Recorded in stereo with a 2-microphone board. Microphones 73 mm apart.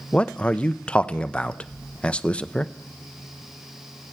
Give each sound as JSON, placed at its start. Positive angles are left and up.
{"t": 0.1, "sound": "a man speaking", "side_deg": 15, "distance_m": 0.5}